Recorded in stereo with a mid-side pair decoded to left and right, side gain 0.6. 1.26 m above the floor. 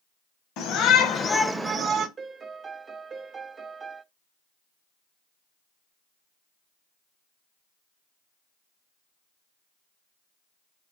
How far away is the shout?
About 1.2 m.